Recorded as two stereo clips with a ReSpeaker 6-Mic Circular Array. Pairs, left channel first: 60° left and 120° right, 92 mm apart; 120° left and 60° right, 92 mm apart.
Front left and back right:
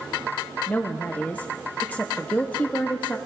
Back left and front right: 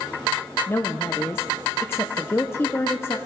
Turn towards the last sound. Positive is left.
turn(degrees=110)